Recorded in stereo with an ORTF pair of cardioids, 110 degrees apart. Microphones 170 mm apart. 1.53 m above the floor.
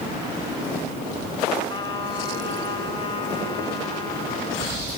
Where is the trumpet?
25° left, 5.5 m.